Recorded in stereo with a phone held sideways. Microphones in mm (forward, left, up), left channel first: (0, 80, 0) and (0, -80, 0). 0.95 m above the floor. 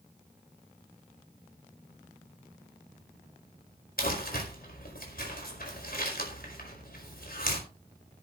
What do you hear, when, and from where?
4.0 s crumpling: 70° left (ahead or behind), 5 m